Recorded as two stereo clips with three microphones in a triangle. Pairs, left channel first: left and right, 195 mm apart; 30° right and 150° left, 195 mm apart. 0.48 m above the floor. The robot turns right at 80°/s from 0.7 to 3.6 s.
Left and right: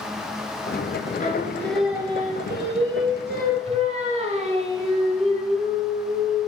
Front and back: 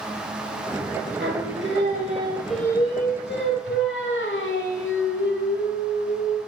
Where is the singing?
135° left, 1.2 m; by 6.5 s 35° right, 1.2 m.